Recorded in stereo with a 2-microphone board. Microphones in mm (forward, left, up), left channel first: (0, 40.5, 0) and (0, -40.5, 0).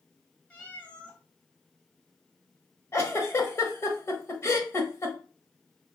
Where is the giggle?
35° left (ahead or behind), 0.7 m.